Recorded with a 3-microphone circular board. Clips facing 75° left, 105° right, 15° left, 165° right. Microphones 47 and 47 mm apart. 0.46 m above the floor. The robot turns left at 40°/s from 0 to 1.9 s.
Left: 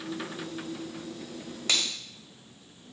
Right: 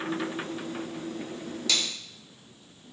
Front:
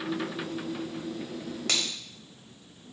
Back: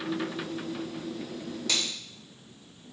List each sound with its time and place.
1.7 s a finger snap: 30° left, 2.0 m; by 1.9 s 25° left, 2.0 m